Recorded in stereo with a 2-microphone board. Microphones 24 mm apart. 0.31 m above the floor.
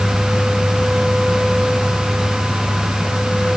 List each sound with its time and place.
Only background noise.